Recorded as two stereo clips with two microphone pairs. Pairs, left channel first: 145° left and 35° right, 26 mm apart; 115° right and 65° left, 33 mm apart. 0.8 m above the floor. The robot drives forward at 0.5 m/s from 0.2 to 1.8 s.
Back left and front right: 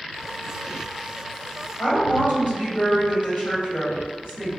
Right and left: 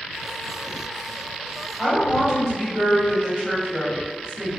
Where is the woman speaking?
145° left, 1.9 m.